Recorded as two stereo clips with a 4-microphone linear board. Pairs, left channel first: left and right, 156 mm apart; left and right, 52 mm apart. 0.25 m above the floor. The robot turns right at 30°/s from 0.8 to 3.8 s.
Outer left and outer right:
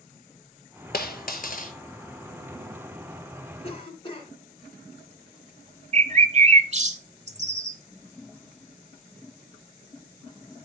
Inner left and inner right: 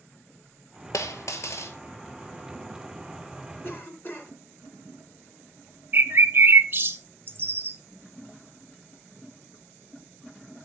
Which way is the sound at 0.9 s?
80° left.